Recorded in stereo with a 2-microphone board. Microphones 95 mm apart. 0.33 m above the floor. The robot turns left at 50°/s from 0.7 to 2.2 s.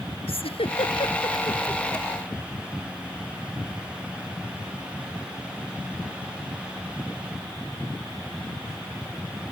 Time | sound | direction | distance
0.3 | a giggle | 80° left | ?